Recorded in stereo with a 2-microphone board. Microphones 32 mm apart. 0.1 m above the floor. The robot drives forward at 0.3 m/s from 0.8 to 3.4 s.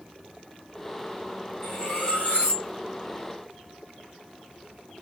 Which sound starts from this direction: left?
Cutlery clinking, at 1.6 s.